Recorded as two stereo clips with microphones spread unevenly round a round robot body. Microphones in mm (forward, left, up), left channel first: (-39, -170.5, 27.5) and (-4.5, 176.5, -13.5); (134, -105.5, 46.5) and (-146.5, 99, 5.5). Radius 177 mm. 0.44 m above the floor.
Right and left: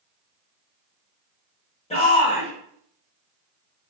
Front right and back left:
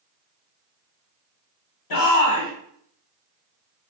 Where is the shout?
20° right, 1.3 m.